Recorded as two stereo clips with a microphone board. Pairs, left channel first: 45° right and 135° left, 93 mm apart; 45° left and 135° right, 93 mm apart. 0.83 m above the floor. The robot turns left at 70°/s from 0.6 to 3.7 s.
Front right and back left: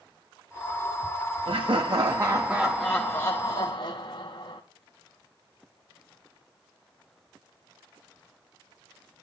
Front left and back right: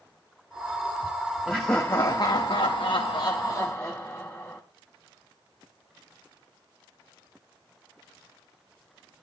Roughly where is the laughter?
Behind left.